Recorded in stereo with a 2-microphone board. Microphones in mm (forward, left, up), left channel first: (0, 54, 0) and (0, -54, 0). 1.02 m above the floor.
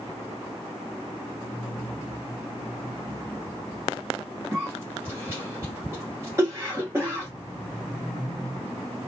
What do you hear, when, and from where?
4.5 s a cough: 20° right (ahead or behind), 1.1 m